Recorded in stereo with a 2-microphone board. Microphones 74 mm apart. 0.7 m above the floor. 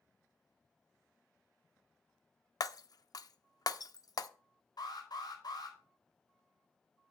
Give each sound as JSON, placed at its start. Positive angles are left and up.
{"t": 2.6, "sound": "breaking glass", "side_deg": 55, "distance_m": 0.6}
{"t": 4.8, "sound": "an alarm", "side_deg": 70, "distance_m": 6.0}